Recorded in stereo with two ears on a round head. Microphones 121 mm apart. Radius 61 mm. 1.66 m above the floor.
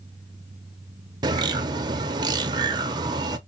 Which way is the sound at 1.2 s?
35° right (ahead or behind).